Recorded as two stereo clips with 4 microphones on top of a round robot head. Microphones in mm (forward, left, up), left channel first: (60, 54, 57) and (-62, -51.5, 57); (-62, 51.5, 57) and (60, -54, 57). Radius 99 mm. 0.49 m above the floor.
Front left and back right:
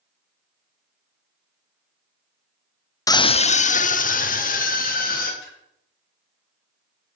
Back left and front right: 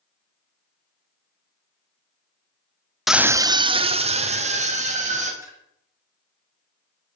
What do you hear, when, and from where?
3.1 s a scream: 45° left, 0.7 m; by 5.3 s 5° left, 3 m
5.4 s a splash: 35° left, 4 m